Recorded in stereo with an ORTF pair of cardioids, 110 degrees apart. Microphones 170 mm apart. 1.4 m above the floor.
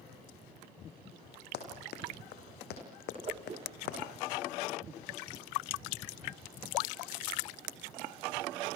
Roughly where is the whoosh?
Ahead right.